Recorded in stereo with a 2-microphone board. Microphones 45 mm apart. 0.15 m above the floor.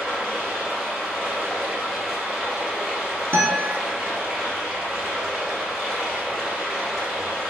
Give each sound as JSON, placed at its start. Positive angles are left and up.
{"t": 0.0, "sound": "running water", "side_deg": -10, "distance_m": 1.8}
{"t": 3.3, "sound": "a guitar", "side_deg": -60, "distance_m": 1.1}